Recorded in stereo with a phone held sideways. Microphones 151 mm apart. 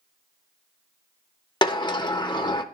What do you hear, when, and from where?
1.6 s a sliding door: 30° left (ahead or behind), 0.7 m